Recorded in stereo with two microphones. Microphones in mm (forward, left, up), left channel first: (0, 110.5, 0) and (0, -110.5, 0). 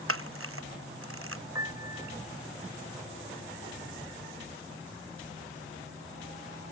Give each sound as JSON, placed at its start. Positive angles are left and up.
{"t": 0.1, "sound": "a camera shutter", "side_deg": -75}
{"t": 1.6, "sound": "a piano", "side_deg": -15}